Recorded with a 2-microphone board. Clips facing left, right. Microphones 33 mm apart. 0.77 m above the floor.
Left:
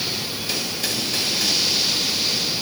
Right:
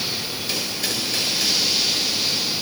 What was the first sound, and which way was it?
Only background noise.